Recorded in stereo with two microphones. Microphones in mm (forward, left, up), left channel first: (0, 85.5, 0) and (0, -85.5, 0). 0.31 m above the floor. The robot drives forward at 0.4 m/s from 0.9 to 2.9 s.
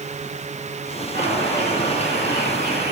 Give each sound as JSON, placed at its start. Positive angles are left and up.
{"t": 1.1, "sound": "a bird", "side_deg": -75, "distance_m": 10.0}